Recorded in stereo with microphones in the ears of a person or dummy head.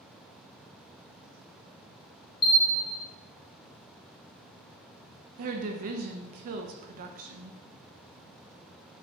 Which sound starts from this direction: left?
A bell, at 2.4 s.